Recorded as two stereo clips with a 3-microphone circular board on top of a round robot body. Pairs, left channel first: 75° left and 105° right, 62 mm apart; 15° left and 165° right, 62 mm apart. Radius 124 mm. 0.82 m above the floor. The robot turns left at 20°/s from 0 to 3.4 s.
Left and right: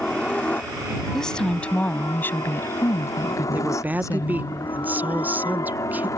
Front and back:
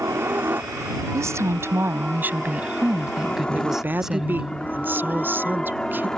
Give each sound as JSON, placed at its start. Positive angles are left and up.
{"t": 0.0, "sound": "a helicopter", "azimuth_deg": 155}
{"t": 1.1, "sound": "a woman speaking", "azimuth_deg": 160}
{"t": 3.5, "sound": "a woman speaking", "azimuth_deg": -140}